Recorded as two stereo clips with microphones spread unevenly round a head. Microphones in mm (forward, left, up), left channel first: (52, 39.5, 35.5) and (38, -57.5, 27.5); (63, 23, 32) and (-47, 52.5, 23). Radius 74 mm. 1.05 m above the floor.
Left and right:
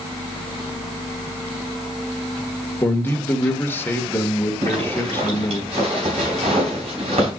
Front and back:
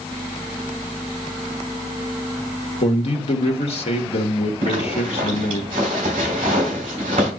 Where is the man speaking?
15° left, 1.5 m.